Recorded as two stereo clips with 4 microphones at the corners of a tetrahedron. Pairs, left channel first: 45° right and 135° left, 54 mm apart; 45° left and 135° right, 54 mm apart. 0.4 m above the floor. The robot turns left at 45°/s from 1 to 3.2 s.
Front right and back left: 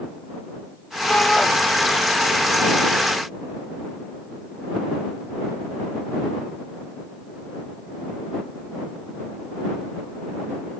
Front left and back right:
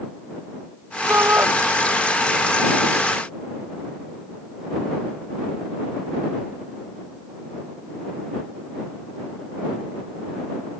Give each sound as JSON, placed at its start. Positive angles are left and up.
{"t": 1.1, "sound": "a shout", "azimuth_deg": -105}